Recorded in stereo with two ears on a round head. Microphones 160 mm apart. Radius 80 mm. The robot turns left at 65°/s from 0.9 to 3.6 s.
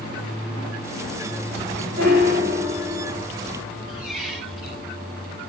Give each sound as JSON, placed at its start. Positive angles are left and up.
{"t": 2.0, "sound": "a piano", "azimuth_deg": -85, "distance_m": 1.2}
{"t": 3.9, "sound": "a squeak", "side_deg": 0, "distance_m": 1.2}